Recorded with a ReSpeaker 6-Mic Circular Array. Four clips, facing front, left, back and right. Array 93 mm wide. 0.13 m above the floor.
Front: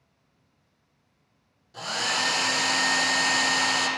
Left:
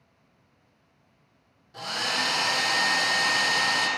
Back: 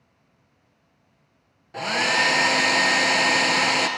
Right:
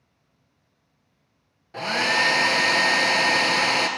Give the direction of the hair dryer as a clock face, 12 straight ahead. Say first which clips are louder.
Right 7 dB, back 6 dB; 5 o'clock.